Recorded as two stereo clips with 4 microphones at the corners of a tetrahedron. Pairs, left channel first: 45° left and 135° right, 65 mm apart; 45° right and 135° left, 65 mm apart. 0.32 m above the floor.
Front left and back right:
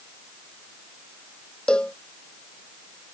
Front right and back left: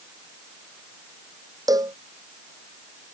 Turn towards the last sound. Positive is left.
turn(degrees=120)